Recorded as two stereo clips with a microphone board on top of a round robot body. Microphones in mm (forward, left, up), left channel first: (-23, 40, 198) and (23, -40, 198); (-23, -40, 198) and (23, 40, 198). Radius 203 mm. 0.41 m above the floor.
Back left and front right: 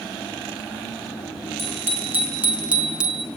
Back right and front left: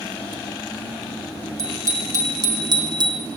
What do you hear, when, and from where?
1.6 s a bicycle bell: 5° left, 6 m; by 3.3 s 25° left, 5 m